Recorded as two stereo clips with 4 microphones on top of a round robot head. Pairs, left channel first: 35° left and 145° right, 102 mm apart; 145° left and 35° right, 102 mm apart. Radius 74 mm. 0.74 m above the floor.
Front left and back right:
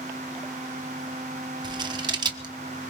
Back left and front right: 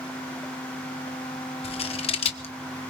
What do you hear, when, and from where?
1.6 s scissors: 170° left, 1.1 m